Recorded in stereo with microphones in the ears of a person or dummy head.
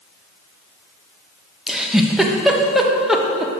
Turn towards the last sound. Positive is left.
turn(degrees=-5)  # may be behind; listen again after turning